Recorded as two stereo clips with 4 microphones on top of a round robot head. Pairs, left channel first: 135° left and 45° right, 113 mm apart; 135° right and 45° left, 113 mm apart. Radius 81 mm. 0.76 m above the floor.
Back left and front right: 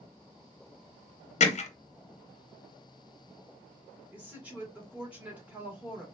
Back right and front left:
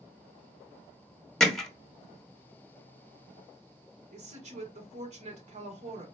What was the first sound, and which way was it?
Hammering, 140° left.